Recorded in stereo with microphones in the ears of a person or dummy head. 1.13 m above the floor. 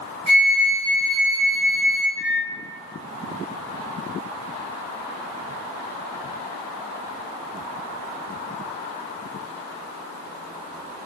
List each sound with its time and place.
0.3 s a flute: 50° right (ahead or behind), 1.8 m
2.2 s a microwave: 50° right (ahead or behind), 0.9 m